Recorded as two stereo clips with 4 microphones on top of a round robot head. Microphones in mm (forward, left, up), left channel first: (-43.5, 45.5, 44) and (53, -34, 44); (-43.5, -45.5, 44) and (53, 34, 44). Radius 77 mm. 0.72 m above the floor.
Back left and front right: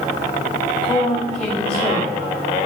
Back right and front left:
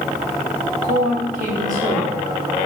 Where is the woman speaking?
60° left, 2.5 m.